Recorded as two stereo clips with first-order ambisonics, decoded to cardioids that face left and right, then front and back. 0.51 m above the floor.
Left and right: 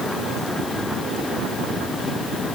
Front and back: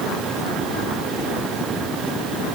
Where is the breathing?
No breathing in this recording.